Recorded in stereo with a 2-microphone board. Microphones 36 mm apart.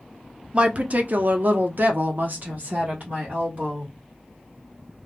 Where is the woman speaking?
30° right (ahead or behind), 0.6 m; by 3.9 s 45° right (ahead or behind), 1.7 m.